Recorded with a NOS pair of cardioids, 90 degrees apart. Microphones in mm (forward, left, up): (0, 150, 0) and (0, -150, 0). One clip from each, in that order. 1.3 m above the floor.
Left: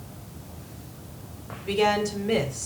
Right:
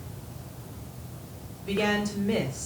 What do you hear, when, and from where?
1.7 s a woman speaking: 15° left, 3.5 m